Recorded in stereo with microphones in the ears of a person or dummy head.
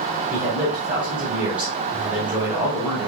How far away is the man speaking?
About 3.5 m.